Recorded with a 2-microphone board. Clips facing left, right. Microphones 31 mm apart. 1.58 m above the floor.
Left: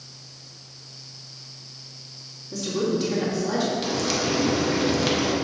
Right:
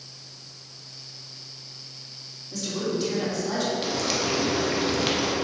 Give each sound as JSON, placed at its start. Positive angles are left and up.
{"t": 2.5, "sound": "a woman speaking", "side_deg": 5, "distance_m": 2.5}
{"t": 3.8, "sound": "frying", "side_deg": -5, "distance_m": 1.2}